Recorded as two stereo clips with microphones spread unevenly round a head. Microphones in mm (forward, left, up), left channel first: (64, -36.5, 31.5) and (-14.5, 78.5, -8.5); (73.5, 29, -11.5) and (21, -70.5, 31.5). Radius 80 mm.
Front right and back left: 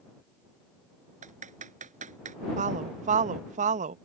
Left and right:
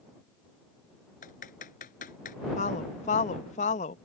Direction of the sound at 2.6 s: 90° left.